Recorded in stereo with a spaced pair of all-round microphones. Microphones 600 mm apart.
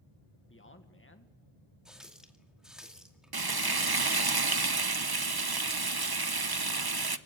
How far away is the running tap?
About 2 m.